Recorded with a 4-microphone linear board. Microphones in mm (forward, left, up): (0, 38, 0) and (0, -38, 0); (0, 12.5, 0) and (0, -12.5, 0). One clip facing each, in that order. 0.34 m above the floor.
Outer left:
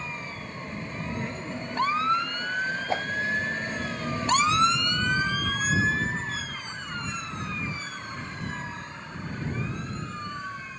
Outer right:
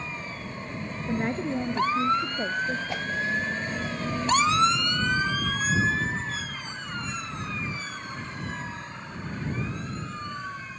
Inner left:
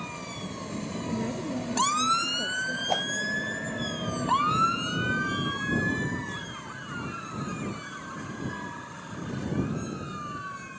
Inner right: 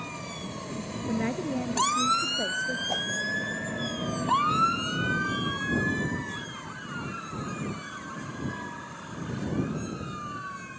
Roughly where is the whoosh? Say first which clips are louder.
Outer left 4 dB, inner left 5 dB; left.